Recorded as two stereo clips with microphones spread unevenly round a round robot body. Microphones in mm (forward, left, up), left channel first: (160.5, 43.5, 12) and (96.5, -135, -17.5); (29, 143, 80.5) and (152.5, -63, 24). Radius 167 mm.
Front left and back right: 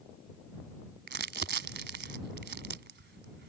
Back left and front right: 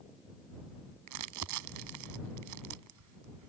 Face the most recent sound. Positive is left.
turn(degrees=-80)